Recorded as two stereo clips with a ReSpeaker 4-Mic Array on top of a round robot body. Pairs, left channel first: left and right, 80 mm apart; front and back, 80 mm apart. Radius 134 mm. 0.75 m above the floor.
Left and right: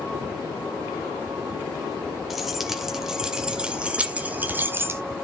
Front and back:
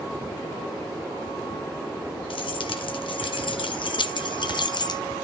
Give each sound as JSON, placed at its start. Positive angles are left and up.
{"t": 2.3, "sound": "keys jangling", "azimuth_deg": 0, "distance_m": 2.5}